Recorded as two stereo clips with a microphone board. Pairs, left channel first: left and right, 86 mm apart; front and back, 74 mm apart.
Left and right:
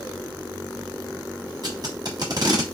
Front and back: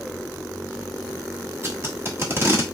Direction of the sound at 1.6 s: 125° right.